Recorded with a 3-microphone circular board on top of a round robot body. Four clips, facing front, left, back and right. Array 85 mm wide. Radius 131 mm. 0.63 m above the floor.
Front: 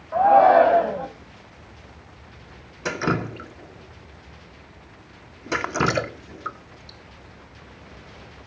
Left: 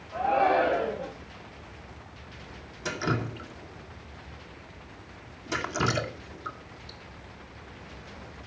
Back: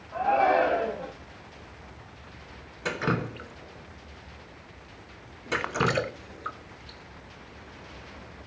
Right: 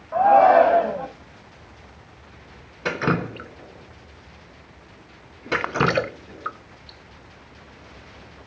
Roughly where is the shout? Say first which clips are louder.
Right 10 dB, front 9 dB; ahead right.